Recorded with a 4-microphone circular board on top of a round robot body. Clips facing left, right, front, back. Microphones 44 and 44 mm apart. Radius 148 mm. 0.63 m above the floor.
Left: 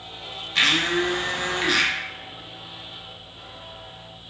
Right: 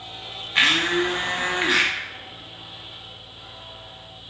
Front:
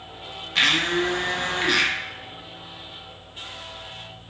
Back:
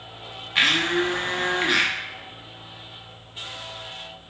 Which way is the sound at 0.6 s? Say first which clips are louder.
Right 1 dB, even; 125° right.